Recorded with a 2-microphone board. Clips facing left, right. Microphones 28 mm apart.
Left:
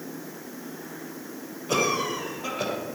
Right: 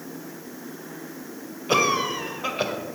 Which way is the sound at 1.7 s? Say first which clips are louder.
Right 3 dB; 35° right (ahead or behind).